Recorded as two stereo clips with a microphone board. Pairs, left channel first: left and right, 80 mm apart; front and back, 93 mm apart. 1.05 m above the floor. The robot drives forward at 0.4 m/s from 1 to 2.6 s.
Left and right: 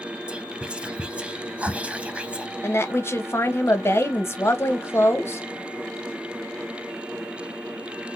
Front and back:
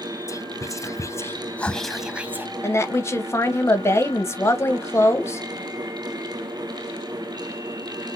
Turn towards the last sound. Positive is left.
turn(degrees=45)